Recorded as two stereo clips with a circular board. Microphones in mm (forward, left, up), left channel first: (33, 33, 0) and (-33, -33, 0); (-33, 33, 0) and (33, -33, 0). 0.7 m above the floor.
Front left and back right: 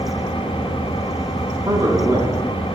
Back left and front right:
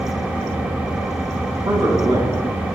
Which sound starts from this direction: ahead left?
An engine running, at 0.0 s.